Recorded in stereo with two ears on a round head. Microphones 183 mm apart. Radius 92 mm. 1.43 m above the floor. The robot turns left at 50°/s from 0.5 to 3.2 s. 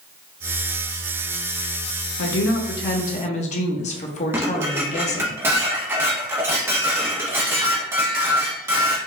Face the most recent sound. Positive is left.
turn(degrees=-10)  # may be behind; listen again after turning